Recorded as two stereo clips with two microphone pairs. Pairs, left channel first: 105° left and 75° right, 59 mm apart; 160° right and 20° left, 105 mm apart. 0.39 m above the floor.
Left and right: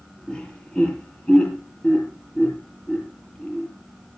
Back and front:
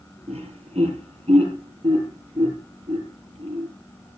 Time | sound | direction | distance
0.3 | laughter | 30° left | 8.5 m